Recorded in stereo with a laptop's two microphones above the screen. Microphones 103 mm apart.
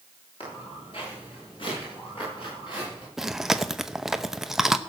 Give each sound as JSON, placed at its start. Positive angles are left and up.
{"t": 0.4, "sound": "footsteps", "side_deg": 60, "distance_m": 8.0}
{"t": 3.2, "sound": "chewing", "side_deg": -5, "distance_m": 0.8}